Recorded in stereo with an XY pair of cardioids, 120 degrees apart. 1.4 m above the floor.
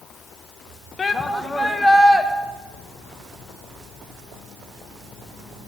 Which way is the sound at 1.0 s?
30° left.